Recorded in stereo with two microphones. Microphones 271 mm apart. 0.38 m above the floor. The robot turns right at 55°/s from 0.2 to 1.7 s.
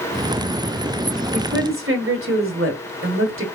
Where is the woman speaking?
40° right (ahead or behind), 1.7 m; by 3.5 s 50° right (ahead or behind), 1.7 m.